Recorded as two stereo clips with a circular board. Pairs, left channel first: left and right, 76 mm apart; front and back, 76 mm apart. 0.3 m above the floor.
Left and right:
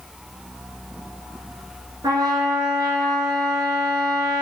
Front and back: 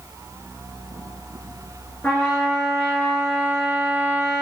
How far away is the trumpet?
About 0.8 m.